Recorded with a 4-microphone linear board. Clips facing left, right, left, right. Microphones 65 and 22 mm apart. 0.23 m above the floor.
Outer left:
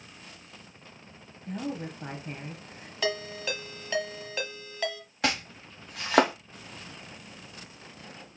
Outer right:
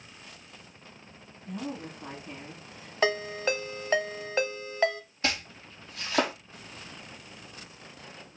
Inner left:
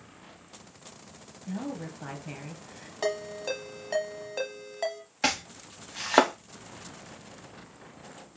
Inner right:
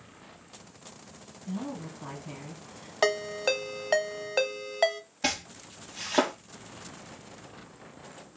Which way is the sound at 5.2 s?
80° left.